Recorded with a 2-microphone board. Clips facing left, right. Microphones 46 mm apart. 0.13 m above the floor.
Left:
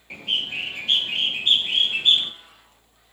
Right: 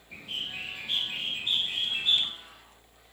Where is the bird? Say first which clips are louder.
Left 10 dB; 75° left (ahead or behind), 0.9 m.